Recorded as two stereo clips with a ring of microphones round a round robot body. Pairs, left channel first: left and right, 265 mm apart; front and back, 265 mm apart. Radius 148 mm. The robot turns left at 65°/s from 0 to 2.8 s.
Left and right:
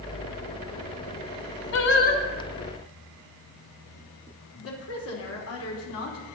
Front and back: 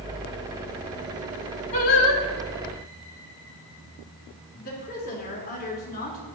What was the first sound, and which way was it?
Singing, 65° left.